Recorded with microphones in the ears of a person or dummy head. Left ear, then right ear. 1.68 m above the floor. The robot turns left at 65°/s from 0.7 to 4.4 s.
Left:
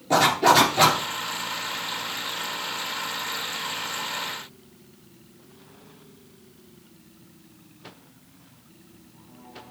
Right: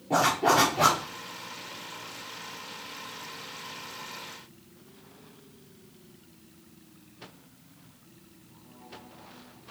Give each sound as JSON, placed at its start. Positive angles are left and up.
{"t": 0.1, "sound": "a zipper", "side_deg": 70, "distance_m": 4.0}